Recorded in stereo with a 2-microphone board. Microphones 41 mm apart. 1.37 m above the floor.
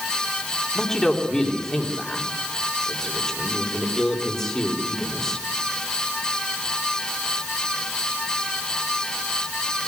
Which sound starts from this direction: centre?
A man speaking, at 0.8 s.